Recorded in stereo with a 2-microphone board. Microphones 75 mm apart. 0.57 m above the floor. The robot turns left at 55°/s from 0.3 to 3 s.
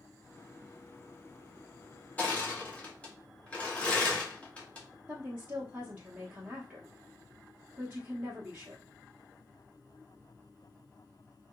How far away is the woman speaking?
About 0.7 m.